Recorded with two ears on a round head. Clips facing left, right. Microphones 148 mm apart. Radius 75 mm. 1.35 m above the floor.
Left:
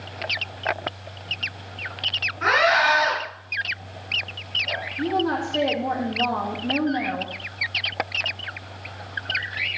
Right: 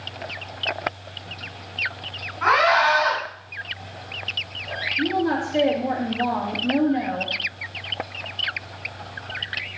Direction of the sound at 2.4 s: 25° left (ahead or behind).